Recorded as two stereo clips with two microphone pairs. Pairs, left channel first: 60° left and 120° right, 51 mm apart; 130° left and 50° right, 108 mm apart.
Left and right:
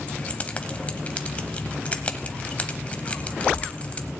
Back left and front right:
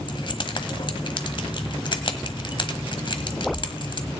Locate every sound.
0.1 s keys jangling: 115° left, 1.1 m